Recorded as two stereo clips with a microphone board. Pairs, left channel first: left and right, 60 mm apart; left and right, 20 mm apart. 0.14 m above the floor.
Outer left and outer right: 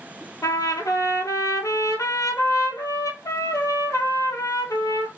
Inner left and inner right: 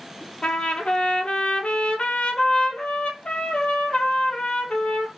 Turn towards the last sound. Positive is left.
turn(degrees=70)  # may be behind; listen again after turning